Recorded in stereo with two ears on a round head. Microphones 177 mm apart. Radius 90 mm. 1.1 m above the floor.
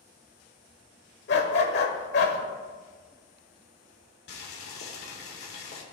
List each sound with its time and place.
1.3 s a dog barking: 60° left (ahead or behind), 1.5 m
4.3 s boiling: 55° left (ahead or behind), 2 m